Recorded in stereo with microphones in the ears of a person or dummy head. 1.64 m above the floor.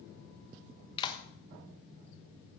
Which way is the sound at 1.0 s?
25° left (ahead or behind).